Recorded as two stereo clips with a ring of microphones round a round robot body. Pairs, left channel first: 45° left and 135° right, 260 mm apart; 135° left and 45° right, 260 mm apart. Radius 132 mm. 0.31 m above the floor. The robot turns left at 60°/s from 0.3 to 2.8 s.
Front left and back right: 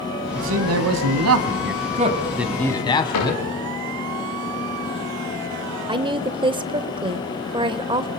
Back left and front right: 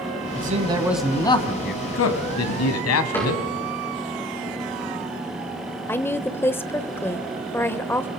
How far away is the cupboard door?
About 9.5 m.